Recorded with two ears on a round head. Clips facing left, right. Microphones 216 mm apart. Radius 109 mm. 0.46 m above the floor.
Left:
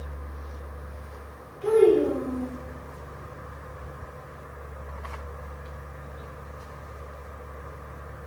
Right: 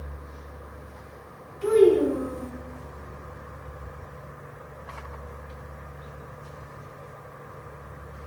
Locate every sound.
1.6 s a child speaking: 75° right (ahead or behind), 3 m